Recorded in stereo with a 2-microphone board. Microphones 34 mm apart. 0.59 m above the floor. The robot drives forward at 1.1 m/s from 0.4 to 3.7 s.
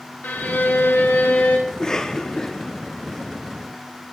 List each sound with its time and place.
0.2 s a violin: 70° left (ahead or behind), 2.5 m; by 1.6 s 60° left (ahead or behind), 2.5 m
1.7 s a cough: 20° left (ahead or behind), 1.2 m; by 3.8 s 10° left (ahead or behind), 2 m